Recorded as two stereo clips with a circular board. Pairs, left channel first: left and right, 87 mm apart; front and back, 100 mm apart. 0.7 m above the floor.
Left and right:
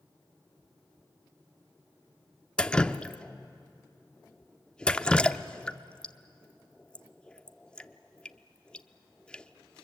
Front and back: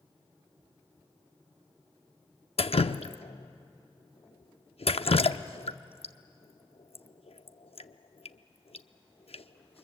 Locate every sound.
2.6 s dripping: 10° left, 0.6 m